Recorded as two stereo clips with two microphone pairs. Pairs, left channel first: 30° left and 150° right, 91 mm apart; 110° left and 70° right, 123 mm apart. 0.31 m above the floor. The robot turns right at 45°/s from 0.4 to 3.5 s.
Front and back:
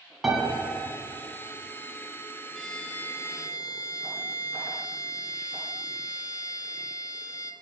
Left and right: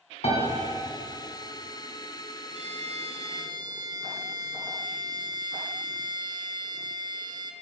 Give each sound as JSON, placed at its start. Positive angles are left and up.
{"t": 0.2, "sound": "a piano", "azimuth_deg": 125, "distance_m": 2.5}
{"t": 2.5, "sound": "a violin", "azimuth_deg": -60, "distance_m": 0.7}